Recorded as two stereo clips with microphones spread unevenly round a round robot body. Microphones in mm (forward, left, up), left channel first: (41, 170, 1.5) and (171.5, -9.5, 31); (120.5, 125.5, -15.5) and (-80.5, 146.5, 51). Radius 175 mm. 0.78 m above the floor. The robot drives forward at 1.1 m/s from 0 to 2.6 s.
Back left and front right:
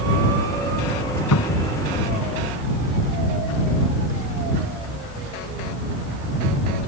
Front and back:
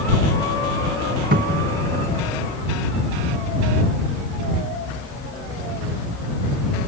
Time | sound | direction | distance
1.3 | a cupboard door | 135° left | ?